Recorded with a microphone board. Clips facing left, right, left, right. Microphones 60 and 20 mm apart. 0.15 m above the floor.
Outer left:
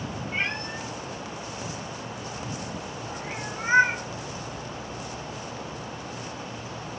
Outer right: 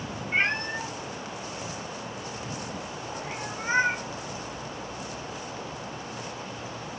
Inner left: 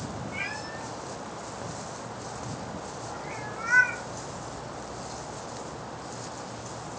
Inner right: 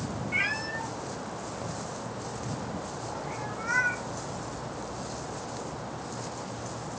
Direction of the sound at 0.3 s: 40° right (ahead or behind).